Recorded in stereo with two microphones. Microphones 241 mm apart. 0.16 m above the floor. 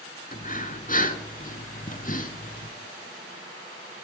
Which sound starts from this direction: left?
Breathing, at 0.3 s.